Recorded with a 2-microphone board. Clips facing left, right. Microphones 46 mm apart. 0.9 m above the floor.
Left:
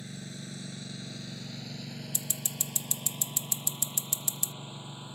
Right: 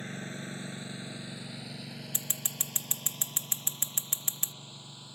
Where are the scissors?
45° right (ahead or behind).